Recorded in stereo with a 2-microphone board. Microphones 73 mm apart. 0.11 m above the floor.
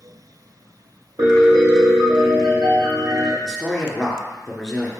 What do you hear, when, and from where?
1.2 s a piano: 70° right (ahead or behind), 2 m
3.4 s a man speaking: 5° left (ahead or behind), 1.6 m